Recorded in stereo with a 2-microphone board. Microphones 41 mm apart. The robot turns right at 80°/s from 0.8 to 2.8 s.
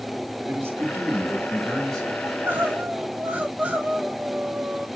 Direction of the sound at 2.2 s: 90° right.